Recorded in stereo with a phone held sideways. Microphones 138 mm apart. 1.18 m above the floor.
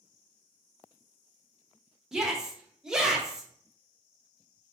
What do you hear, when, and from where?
2.1 s a shout: 5° right (ahead or behind), 0.9 m